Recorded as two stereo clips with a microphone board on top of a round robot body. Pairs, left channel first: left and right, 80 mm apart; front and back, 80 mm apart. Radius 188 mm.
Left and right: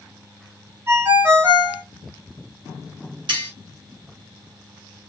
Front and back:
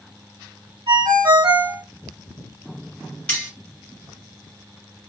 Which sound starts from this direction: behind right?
A ringtone, at 0.9 s.